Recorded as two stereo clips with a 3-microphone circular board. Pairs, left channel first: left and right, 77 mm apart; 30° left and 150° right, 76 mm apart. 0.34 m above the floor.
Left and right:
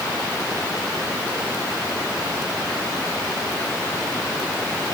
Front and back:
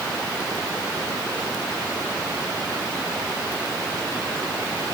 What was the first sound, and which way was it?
Only background noise.